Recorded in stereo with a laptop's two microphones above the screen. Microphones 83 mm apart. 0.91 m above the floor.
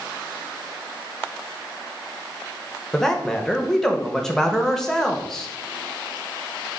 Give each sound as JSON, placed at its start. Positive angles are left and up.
{"t": 2.9, "sound": "a man speaking", "side_deg": 5, "distance_m": 0.7}